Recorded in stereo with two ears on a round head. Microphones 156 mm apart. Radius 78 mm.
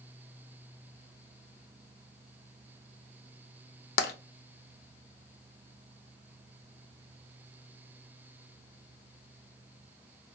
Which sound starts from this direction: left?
Tapping, at 4.0 s.